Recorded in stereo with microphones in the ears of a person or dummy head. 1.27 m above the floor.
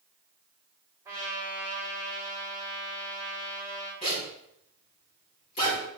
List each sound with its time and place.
1.1 s a trumpet: 10° right (ahead or behind), 3.5 m
4.0 s a zipper: 40° left (ahead or behind), 4 m